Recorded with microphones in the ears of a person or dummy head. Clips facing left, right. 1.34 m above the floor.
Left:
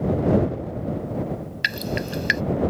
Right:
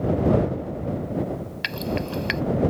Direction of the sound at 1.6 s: 15° left (ahead or behind).